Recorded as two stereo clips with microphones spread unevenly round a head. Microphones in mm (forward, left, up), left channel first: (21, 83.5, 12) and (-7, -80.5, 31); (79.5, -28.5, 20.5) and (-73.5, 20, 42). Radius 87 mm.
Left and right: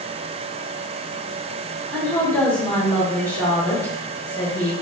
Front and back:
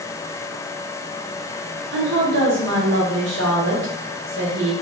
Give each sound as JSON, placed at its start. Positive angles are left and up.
{"t": 1.9, "sound": "a woman speaking", "azimuth_deg": 160, "distance_m": 1.0}